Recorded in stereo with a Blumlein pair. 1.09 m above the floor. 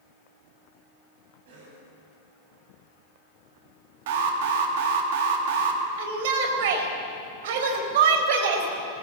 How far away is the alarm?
About 2.5 m.